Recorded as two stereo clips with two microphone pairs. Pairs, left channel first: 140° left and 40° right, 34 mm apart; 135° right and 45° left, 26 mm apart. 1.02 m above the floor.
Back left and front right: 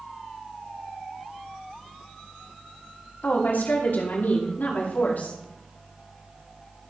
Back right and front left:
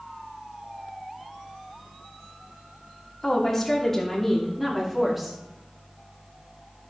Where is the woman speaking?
155° left, 3 m; by 5.4 s 125° left, 2.5 m.